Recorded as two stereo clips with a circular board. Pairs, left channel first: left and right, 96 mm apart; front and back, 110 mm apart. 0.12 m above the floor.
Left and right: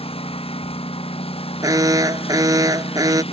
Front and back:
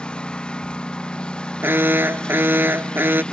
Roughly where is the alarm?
Behind right.